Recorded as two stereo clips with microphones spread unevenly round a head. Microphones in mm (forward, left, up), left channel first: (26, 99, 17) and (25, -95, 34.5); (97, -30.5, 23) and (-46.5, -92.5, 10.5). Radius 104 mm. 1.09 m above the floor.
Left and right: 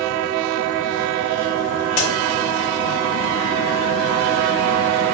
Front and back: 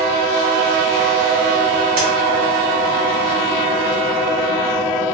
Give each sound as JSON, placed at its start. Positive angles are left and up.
{"t": 2.0, "sound": "a crack", "azimuth_deg": 150, "distance_m": 0.8}